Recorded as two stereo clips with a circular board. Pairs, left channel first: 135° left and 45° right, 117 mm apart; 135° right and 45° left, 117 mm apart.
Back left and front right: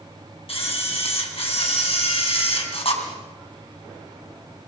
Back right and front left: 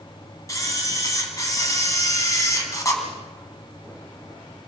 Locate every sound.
0.5 s a camera shutter: 165° left, 3.5 m